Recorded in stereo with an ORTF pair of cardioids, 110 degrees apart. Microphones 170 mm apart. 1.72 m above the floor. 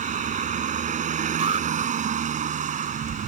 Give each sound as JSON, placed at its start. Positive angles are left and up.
{"t": 0.0, "sound": "a vehicle", "azimuth_deg": -50}
{"t": 1.4, "sound": "an alarm", "azimuth_deg": -35}